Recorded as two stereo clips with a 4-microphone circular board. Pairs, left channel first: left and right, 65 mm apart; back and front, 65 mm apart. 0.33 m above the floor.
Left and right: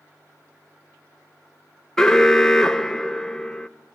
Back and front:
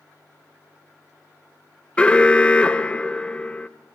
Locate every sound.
2.0 s an alarm: 150° left, 0.5 m